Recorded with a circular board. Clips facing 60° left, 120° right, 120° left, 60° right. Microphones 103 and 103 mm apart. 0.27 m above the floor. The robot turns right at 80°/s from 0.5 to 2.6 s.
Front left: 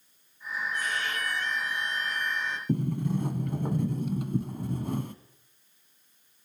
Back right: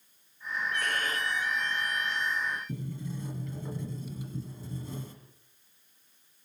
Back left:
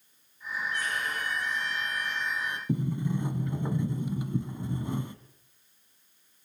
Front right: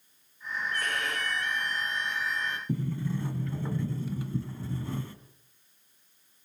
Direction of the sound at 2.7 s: 50° left.